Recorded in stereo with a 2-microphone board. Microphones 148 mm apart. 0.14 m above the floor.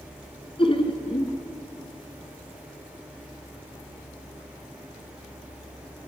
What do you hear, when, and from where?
0.6 s laughter: 40° left (ahead or behind), 1.4 m